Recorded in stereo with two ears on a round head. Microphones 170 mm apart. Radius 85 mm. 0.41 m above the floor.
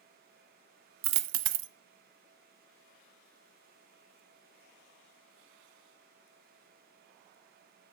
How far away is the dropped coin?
About 0.5 m.